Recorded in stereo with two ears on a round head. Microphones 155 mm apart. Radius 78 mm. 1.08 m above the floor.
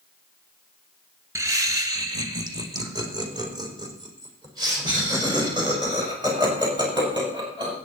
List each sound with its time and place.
1.4 s laughter: 20° right (ahead or behind), 1.3 m; by 7.8 s 25° right (ahead or behind), 8 m